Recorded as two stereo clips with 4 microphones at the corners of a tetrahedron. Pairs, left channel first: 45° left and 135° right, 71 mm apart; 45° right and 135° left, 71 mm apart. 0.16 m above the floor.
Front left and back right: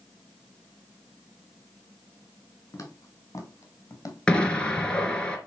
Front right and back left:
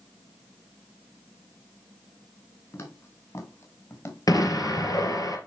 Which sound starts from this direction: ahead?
Footsteps, at 2.7 s.